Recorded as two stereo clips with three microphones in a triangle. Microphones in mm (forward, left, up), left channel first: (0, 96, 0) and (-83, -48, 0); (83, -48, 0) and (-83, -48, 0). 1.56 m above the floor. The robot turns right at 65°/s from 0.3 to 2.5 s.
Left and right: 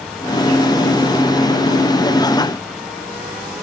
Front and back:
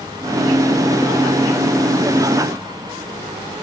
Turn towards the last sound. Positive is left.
No sound to turn to.